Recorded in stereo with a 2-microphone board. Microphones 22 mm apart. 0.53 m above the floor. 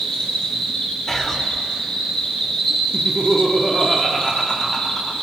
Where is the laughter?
5° left (ahead or behind), 1.1 m.